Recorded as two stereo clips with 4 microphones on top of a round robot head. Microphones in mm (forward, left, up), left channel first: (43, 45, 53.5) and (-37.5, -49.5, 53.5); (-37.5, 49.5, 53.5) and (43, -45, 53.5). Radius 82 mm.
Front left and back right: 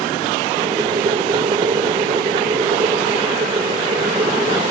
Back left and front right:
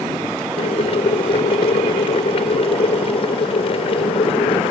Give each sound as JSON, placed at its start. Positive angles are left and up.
{"t": 0.6, "sound": "boiling", "azimuth_deg": 175}